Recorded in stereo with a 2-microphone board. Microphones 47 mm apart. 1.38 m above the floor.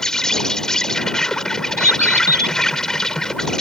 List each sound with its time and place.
0.0 s an insect: 15° left (ahead or behind)
1.8 s a bird: 50° right (ahead or behind)